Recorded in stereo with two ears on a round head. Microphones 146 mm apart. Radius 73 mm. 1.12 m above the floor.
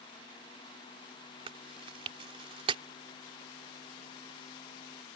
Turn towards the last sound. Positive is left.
turn(degrees=-35)  # may be behind; listen again after turning